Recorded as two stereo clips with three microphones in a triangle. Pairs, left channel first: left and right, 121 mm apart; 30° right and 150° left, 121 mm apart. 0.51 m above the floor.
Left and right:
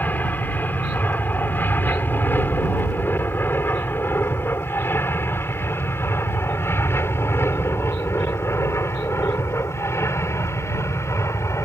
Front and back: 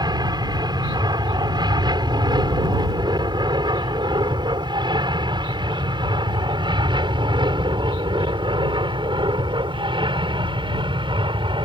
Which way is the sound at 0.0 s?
155° left.